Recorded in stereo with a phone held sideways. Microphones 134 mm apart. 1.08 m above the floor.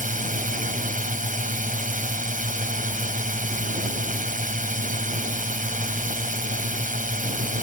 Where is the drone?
80° right.